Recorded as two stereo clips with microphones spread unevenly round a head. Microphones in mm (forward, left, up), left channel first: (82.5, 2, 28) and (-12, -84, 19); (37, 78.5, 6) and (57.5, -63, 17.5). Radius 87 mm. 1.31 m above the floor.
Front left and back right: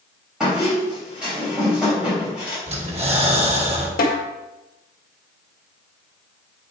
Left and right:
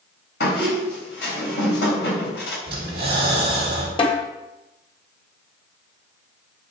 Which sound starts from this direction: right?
Breathing, at 2.7 s.